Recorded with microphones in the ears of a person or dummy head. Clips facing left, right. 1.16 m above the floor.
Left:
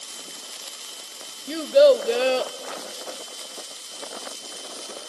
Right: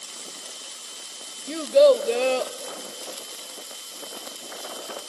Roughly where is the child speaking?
Centre.